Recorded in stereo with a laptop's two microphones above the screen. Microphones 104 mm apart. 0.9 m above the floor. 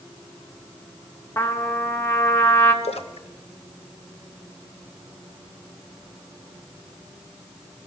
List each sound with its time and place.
1.4 s a trumpet: 25° left (ahead or behind), 0.8 m
2.8 s a splash: 80° left, 0.7 m